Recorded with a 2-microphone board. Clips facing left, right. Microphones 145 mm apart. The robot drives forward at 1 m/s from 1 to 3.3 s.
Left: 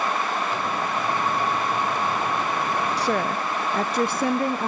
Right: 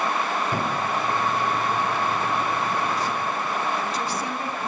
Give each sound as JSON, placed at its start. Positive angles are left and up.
{"t": 0.5, "sound": "a thud", "side_deg": -55, "distance_m": 5.0}
{"t": 3.0, "sound": "a woman speaking", "side_deg": 75, "distance_m": 0.7}